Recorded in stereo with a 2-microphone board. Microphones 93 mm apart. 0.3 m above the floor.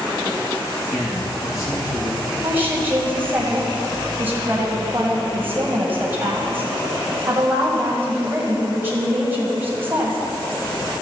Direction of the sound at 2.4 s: 25° right (ahead or behind).